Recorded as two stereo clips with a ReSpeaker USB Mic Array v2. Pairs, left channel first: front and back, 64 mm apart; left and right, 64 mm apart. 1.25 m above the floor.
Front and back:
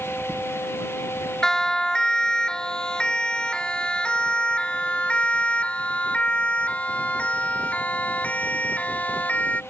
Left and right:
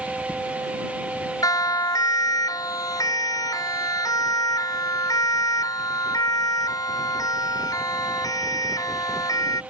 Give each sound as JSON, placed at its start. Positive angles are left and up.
{"t": 1.4, "sound": "a siren", "azimuth_deg": 80}